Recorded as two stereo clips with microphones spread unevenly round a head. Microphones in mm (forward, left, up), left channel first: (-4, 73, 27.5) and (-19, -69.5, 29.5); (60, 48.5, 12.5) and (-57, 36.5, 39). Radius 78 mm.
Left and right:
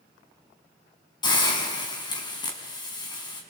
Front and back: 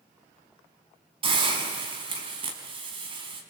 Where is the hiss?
145° left, 4.5 m.